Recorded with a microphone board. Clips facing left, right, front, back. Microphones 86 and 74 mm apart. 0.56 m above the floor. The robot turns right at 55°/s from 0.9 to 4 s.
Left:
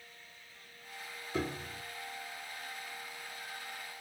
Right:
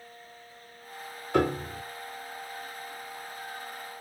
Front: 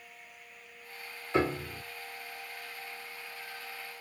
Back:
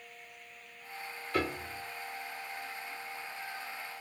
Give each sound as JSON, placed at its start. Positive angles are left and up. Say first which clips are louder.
{"t": 1.3, "sound": "a piano", "louder": "right 11 dB, front 4 dB", "azimuth_deg": -65, "distance_m": 0.5}